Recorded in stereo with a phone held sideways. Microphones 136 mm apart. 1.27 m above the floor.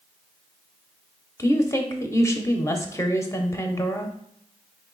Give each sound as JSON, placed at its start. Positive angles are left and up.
{"t": 1.4, "sound": "a woman speaking", "side_deg": 20, "distance_m": 0.6}